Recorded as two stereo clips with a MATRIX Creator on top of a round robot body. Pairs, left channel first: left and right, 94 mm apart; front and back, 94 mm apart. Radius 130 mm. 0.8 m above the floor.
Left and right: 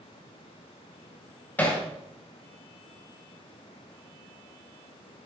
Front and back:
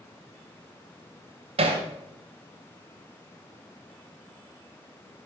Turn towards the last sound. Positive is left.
turn(degrees=165)